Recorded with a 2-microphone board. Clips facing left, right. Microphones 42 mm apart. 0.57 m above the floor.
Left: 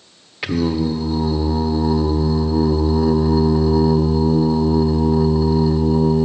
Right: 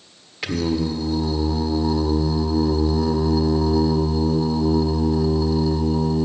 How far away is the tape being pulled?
I don't hear tape being pulled.